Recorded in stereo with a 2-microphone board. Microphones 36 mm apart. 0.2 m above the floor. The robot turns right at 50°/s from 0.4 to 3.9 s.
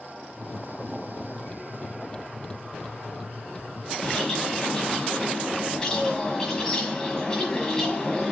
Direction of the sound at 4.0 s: 15° left (ahead or behind).